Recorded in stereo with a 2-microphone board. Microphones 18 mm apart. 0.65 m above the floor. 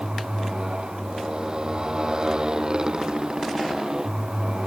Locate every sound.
0.0 s a motorcycle: 50° right (ahead or behind); by 4.7 s 45° right (ahead or behind)